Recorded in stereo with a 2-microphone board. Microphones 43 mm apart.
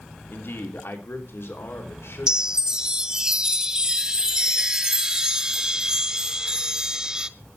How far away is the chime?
About 0.6 m.